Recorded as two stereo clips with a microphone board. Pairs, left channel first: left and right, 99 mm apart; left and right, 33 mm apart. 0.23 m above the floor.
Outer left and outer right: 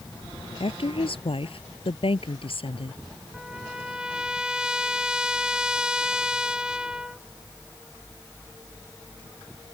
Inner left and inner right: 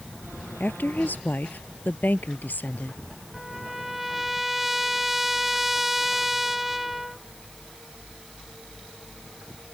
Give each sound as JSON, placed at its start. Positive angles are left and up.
{"t": 0.6, "sound": "a woman speaking", "side_deg": 70}
{"t": 3.3, "sound": "a trumpet", "side_deg": -10}